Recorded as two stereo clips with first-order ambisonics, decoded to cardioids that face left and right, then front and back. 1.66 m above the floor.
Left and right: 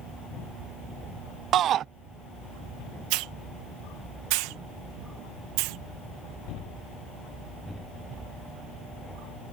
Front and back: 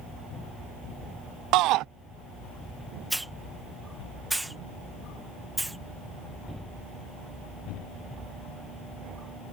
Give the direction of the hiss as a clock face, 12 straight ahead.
3 o'clock.